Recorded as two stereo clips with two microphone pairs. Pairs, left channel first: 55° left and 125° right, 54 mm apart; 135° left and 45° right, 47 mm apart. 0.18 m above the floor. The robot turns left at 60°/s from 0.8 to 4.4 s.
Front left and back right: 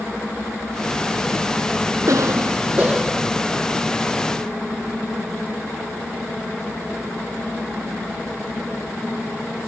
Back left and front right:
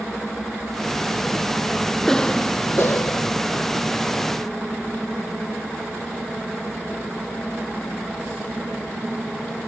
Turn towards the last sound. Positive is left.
turn(degrees=80)